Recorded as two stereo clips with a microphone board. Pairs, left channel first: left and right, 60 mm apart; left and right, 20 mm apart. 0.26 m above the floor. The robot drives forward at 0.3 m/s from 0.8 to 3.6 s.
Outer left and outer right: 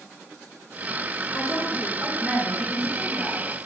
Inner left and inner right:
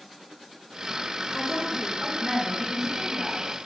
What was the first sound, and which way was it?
A woman speaking, 10° right (ahead or behind).